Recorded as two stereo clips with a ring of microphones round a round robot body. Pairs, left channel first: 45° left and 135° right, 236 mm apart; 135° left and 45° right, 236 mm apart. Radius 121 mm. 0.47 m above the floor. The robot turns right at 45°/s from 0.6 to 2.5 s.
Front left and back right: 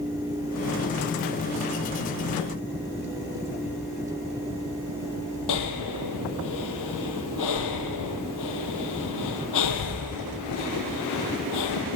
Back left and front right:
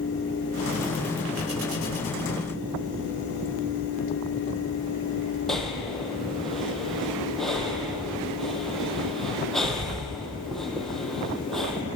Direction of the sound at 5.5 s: 45° left.